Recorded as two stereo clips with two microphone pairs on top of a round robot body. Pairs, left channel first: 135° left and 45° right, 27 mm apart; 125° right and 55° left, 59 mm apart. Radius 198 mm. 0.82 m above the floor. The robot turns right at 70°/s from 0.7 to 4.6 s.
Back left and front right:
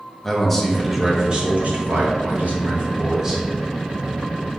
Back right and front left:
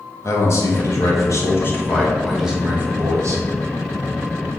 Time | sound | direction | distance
0.2 | a man speaking | 150° right | 1.9 m